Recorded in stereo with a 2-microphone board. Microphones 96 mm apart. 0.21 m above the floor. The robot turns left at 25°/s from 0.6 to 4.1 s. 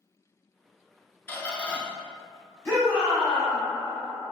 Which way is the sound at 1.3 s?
25° left (ahead or behind).